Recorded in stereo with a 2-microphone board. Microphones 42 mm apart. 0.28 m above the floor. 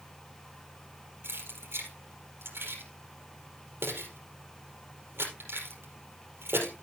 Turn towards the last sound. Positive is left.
turn(degrees=-85)